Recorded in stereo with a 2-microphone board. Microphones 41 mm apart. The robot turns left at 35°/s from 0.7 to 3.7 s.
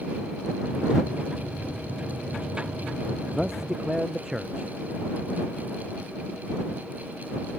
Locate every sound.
3.3 s a man speaking: centre (ahead or behind); by 4.7 s 10° right (ahead or behind)